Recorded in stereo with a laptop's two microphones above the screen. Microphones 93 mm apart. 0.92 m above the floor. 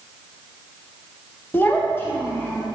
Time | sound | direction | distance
1.5 | a child speaking | 20° left (ahead or behind) | 0.5 m